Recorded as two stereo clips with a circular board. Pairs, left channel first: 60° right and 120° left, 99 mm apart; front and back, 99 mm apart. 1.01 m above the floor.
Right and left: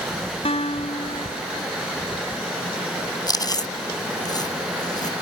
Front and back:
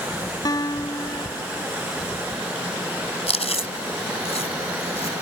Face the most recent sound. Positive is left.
turn(degrees=-10)